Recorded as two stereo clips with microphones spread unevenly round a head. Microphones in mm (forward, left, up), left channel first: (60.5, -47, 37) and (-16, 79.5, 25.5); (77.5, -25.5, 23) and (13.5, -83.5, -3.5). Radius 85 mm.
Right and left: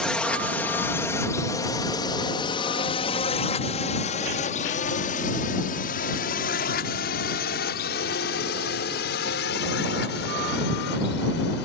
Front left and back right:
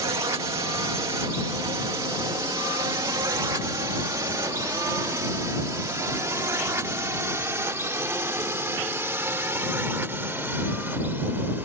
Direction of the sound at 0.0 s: 145° right.